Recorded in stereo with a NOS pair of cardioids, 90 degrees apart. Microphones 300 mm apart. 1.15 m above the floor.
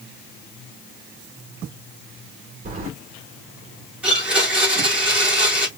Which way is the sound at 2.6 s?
25° right.